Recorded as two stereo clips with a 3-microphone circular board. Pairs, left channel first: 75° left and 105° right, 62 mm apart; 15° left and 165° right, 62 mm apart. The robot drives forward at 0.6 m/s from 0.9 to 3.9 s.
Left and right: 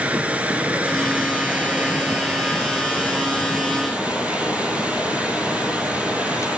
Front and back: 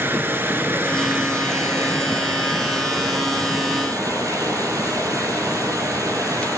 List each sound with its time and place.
0.0 s running water: 155° right, 1.3 m; by 6.6 s 170° right, 3 m